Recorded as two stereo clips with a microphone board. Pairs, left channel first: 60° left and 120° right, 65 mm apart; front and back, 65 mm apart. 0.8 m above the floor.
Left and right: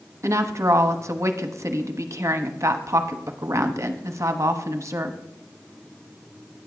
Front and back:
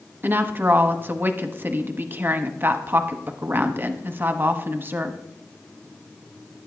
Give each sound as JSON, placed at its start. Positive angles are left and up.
{"t": 0.2, "sound": "a woman speaking", "azimuth_deg": -135, "distance_m": 1.0}